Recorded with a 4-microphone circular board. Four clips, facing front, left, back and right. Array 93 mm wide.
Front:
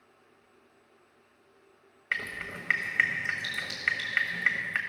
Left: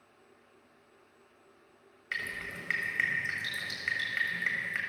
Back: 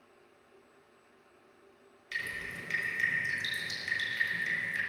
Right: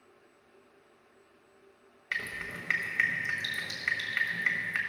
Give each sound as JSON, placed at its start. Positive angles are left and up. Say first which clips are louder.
{"t": 2.1, "sound": "dripping", "louder": "right 1 dB, front 4 dB", "azimuth_deg": -5, "distance_m": 1.4}